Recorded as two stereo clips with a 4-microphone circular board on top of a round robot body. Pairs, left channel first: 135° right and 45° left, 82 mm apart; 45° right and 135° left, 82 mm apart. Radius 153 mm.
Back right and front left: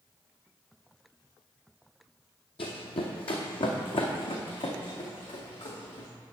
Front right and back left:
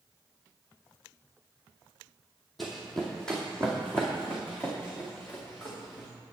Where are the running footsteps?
135° right, 1.0 m; by 6.1 s 115° right, 3 m.